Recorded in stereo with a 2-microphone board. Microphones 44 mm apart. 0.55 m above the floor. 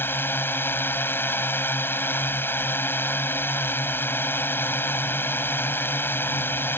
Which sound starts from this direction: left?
A drone, at 0.0 s.